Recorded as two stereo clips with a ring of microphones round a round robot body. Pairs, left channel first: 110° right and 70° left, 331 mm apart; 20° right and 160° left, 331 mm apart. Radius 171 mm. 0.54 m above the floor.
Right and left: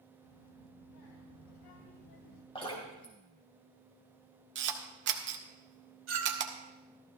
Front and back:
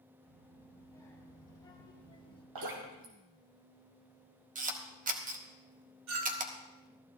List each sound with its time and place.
0.2 s a child speaking: 105° right, 4 m; by 2.5 s 95° right, 2.5 m
2.5 s dripping: 175° left, 4 m
4.5 s a camera shutter: 105° left, 1.4 m
6.1 s a clink: 120° left, 3 m